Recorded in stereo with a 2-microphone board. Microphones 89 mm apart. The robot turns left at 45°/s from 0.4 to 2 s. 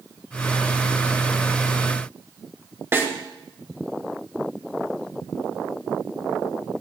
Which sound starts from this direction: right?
A snare drum, at 2.9 s.